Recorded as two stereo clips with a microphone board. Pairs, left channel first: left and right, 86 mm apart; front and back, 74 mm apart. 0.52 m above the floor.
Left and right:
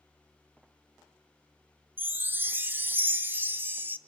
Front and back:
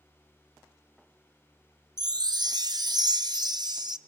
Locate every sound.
2.0 s a chime: 155° right, 0.6 m